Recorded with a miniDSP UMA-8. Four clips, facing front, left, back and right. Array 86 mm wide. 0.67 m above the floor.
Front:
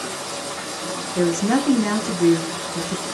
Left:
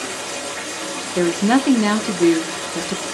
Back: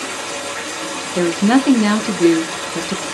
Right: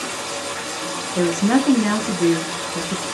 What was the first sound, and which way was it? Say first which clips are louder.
Running water: even, back 3 dB; 155° right.